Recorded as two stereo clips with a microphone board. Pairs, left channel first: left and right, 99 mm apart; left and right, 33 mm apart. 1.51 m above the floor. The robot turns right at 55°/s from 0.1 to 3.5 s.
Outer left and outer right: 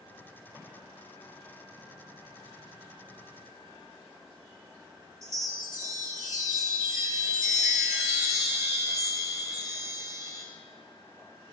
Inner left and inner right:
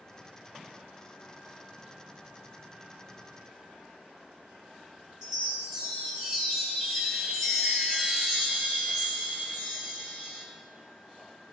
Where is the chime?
30° right (ahead or behind), 2.5 m.